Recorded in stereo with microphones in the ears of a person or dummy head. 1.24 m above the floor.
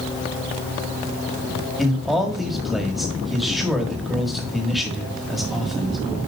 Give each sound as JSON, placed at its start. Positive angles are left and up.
{"t": 1.8, "sound": "a man speaking", "side_deg": 0, "distance_m": 1.4}